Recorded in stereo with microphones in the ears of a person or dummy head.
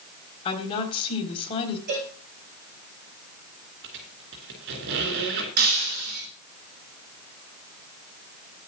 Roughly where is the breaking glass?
Right.